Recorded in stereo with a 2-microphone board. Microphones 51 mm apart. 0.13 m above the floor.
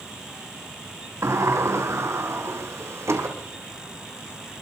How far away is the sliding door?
About 3 m.